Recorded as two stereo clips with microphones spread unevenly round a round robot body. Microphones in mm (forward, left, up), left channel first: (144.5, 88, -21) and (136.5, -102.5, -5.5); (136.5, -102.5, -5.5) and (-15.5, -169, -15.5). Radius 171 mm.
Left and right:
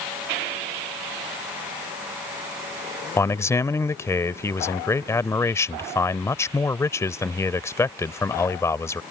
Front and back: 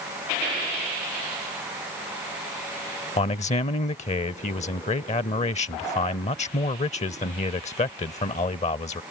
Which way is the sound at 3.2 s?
25° left.